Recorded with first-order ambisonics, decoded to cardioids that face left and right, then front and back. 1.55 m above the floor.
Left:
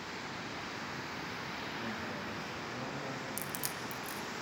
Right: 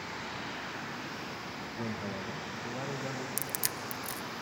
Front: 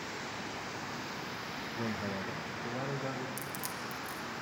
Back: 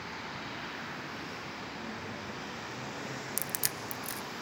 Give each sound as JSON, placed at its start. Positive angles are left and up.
{"t": 1.8, "sound": "a man speaking", "azimuth_deg": -35, "distance_m": 1.7}
{"t": 3.4, "sound": "crushing", "azimuth_deg": -150, "distance_m": 0.6}